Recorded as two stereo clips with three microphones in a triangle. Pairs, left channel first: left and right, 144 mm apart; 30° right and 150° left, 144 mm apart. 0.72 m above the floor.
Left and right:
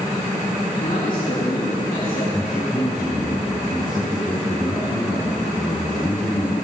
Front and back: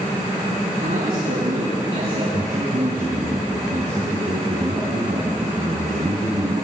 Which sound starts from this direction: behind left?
A man speaking, at 0.8 s.